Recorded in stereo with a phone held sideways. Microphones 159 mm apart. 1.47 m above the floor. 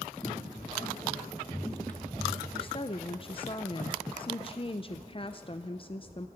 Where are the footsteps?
25° left (ahead or behind), 4 m; by 2.4 s centre (ahead or behind), 2.5 m.